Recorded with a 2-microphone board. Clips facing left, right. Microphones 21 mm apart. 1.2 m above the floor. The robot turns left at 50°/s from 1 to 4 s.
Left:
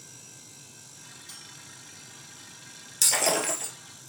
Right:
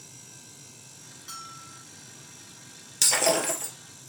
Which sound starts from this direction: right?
A bell, at 1.3 s.